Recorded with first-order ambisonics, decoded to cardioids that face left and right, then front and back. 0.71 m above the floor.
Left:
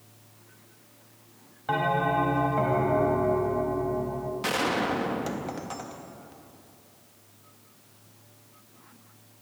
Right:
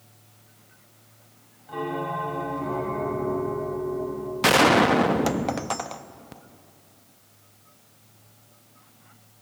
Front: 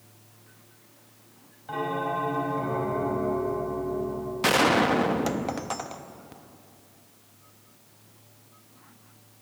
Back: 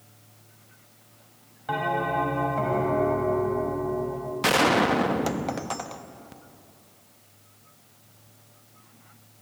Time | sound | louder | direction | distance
1.7 | a bell | left 5 dB, back 3 dB | 120° left | 3 m
4.4 | a gunshot | right 10 dB, even | 90° right | 0.5 m